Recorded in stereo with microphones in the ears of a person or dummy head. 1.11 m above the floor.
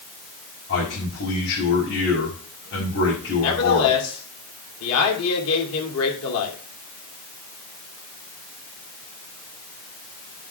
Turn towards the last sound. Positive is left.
turn(degrees=85)